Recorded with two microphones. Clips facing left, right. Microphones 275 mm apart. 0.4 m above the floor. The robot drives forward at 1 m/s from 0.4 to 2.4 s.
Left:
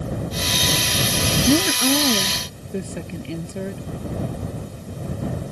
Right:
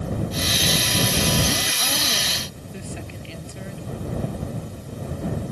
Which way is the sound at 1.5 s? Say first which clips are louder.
Left 11 dB; 65° left (ahead or behind).